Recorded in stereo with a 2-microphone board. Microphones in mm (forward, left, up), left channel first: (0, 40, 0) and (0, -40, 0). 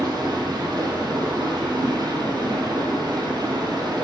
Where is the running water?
60° right (ahead or behind), 4 m.